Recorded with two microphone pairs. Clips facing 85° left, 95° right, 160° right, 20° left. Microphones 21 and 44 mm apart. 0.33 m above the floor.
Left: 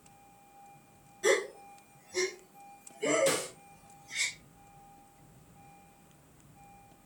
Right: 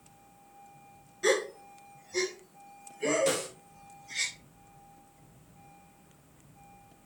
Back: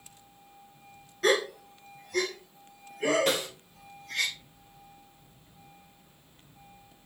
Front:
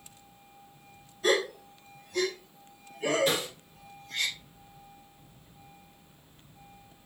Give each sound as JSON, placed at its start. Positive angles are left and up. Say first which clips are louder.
{"t": 1.2, "sound": "a gasp", "louder": "even, back 1 dB", "azimuth_deg": -160, "distance_m": 2.0}
{"t": 3.3, "sound": "a snare drum", "louder": "even, back 1 dB", "azimuth_deg": -175, "distance_m": 4.0}